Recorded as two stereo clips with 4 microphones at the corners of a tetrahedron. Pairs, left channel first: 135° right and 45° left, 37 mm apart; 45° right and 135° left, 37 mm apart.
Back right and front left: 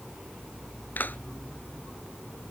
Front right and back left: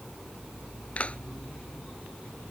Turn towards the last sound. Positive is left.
turn(degrees=-100)